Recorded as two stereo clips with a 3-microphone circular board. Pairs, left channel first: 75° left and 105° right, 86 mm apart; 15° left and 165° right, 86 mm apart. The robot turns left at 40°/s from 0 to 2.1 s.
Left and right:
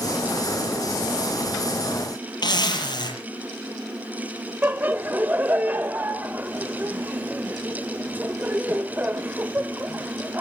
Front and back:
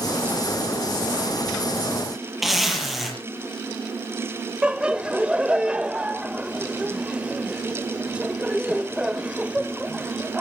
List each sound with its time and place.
2.4 s a zipper: 105° left, 7 m
4.6 s laughter: 110° right, 0.9 m